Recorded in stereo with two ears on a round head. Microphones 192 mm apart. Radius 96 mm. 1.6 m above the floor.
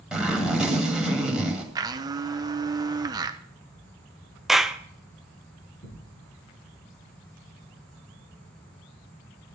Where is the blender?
20° right (ahead or behind), 0.7 m.